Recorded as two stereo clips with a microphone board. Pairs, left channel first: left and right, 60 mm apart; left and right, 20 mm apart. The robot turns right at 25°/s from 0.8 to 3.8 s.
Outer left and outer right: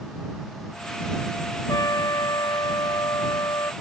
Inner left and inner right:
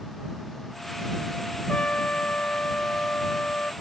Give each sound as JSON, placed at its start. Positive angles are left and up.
{"t": 1.7, "sound": "a trumpet", "azimuth_deg": 65}